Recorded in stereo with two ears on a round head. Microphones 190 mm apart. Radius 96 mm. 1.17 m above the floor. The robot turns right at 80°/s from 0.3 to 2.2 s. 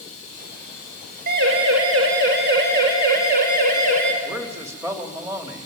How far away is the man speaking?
About 2.5 m.